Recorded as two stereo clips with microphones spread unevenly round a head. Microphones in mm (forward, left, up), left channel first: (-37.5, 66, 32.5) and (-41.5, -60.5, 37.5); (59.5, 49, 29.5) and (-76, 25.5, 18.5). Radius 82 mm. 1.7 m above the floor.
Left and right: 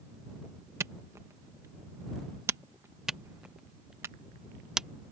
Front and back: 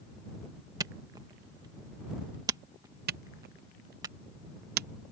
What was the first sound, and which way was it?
A camera shutter, 125° right.